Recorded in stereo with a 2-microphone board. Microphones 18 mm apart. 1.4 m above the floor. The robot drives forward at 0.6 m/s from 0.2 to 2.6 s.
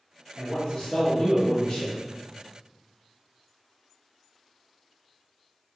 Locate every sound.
0.4 s a man speaking: 35° left (ahead or behind), 1.2 m; by 2.0 s 65° left (ahead or behind), 0.8 m